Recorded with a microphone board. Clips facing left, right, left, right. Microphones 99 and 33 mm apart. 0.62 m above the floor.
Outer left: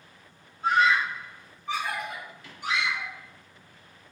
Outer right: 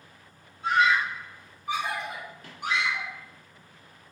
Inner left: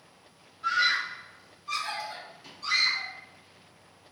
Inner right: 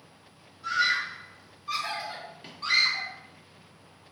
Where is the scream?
40° left (ahead or behind), 1.3 m; by 3.1 s 60° right (ahead or behind), 1.9 m.